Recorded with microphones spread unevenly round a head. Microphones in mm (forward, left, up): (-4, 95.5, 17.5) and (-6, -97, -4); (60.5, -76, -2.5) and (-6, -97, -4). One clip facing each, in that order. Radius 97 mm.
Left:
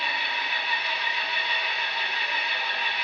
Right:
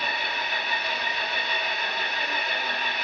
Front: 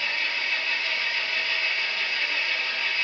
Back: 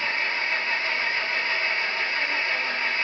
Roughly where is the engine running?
Behind right.